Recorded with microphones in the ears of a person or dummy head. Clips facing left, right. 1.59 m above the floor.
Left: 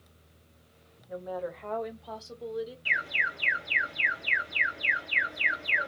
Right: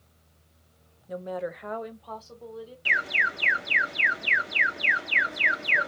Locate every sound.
1.1 s a woman speaking: 50° right (ahead or behind), 0.6 m; by 2.8 s 25° left (ahead or behind), 1.0 m
2.9 s an alarm: 60° right (ahead or behind), 0.6 m